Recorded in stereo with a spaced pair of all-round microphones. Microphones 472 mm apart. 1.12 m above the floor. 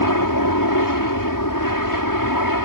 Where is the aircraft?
45° left (ahead or behind).